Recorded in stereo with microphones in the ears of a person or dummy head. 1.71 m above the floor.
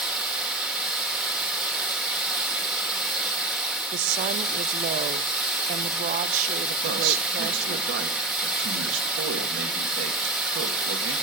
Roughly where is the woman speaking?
Right.